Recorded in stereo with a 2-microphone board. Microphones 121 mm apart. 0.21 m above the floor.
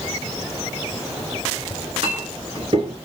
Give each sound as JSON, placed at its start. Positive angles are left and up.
{"t": 1.7, "sound": "a clink", "side_deg": -50, "distance_m": 2.5}